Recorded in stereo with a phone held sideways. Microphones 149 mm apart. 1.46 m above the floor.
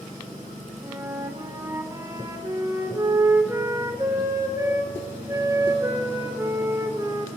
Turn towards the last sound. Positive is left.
turn(degrees=-20)  # may be behind; listen again after turning